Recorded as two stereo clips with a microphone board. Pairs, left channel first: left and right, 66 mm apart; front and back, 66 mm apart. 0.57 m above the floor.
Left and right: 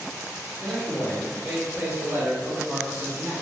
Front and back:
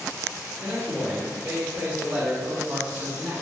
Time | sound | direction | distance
0.6 | a man speaking | 175° left | 1.2 m